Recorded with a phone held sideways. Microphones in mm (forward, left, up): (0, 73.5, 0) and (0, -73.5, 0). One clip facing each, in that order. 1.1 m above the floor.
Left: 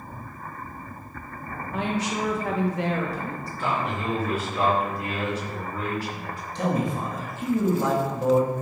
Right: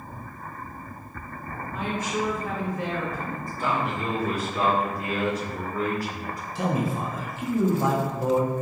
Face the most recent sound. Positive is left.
turn(degrees=-5)  # may be behind; listen again after turning